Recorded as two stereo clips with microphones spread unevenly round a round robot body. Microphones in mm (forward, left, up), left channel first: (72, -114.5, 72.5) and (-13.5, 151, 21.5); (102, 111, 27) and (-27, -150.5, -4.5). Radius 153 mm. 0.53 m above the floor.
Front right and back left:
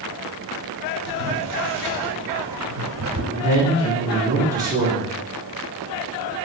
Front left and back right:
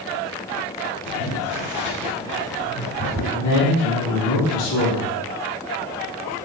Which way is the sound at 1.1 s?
145° left.